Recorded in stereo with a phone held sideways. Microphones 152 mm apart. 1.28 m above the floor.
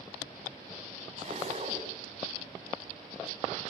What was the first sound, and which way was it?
A zipper, 40° right (ahead or behind).